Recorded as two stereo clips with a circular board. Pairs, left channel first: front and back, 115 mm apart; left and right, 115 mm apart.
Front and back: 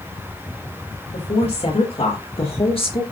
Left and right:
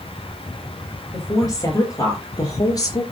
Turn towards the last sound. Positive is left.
turn(degrees=35)